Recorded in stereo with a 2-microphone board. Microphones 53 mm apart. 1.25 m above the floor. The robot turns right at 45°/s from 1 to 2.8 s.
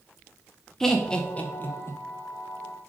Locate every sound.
0.8 s laughter: 10° left (ahead or behind), 0.6 m; by 2.0 s 55° left (ahead or behind), 0.6 m